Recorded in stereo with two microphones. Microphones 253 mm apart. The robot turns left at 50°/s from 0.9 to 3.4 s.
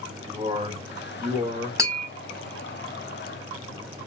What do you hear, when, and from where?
0.3 s a man speaking: 20° right, 1.8 m; by 1.7 s 55° right, 1.8 m
1.8 s tapping: 10° right (ahead or behind), 2 m; by 2.1 s 25° right (ahead or behind), 2 m